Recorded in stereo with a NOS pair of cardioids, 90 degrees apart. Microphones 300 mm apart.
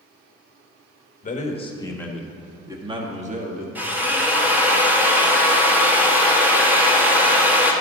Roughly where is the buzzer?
I don't hear a buzzer.